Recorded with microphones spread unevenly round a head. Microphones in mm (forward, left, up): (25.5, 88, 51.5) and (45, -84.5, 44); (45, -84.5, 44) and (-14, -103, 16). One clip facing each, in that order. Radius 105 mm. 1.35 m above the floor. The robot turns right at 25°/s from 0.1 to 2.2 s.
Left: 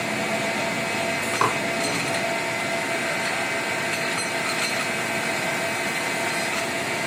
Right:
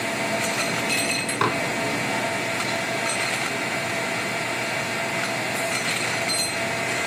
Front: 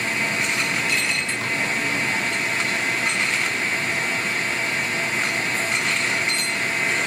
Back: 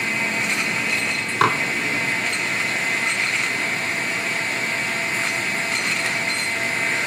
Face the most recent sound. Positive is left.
turn(degrees=-150)